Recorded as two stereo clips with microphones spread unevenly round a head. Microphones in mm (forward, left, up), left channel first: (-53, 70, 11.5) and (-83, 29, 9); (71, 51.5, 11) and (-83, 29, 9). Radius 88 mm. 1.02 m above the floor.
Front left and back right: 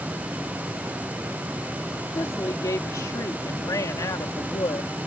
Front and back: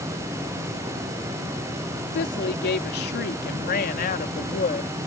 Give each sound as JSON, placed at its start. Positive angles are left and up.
{"t": 2.1, "sound": "a woman speaking", "azimuth_deg": 15}